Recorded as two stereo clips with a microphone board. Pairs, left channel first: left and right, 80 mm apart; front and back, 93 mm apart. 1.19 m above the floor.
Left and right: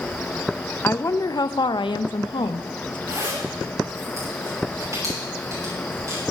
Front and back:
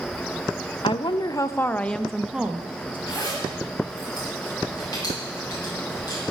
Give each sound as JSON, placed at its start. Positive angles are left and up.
{"t": 0.8, "sound": "a woman speaking", "azimuth_deg": 25, "distance_m": 0.8}
{"t": 3.1, "sound": "a zipper", "azimuth_deg": -45, "distance_m": 8.5}